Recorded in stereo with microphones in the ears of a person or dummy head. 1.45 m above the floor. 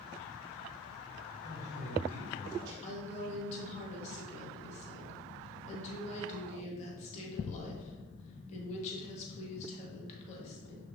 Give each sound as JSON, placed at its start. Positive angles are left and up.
{"t": 1.4, "sound": "a man speaking", "side_deg": -60, "distance_m": 3.0}
{"t": 2.8, "sound": "a woman speaking", "side_deg": 40, "distance_m": 1.9}